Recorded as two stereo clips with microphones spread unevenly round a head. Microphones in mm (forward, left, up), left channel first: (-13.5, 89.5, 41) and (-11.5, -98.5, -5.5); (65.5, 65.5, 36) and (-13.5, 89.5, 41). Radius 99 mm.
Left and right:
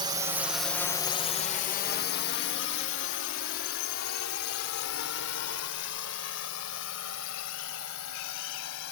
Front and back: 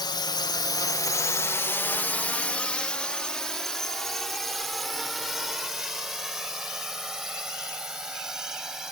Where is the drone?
35° right; by 8.9 s 80° left.